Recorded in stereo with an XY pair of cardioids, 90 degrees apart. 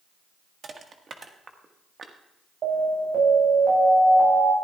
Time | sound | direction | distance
0.6 | crushing | 45° right | 1.5 m
2.6 | an alarm | 60° right | 8.5 m